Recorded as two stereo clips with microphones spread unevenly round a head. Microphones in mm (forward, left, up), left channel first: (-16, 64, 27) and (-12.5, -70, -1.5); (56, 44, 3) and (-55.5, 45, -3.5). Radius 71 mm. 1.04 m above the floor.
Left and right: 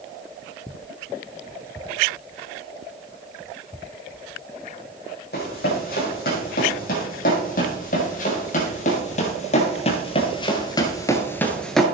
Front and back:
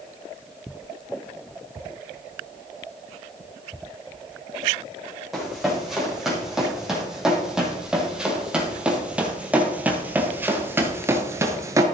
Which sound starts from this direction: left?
Running footsteps, at 5.3 s.